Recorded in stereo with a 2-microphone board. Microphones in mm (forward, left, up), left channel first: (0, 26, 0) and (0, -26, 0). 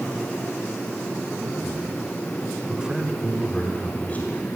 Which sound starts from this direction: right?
A man speaking, at 1.4 s.